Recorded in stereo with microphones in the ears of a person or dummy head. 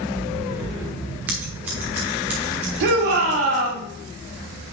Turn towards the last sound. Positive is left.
turn(degrees=-55)  # may be behind; listen again after turning